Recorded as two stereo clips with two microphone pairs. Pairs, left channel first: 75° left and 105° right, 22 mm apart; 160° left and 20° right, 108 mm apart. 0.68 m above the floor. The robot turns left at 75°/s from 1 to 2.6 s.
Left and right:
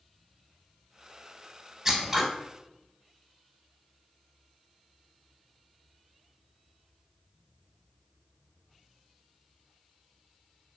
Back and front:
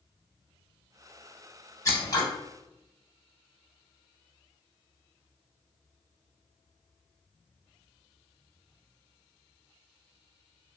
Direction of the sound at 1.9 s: 165° right.